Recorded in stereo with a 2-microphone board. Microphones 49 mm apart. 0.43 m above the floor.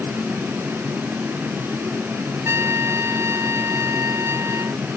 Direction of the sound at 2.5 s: 75° right (ahead or behind).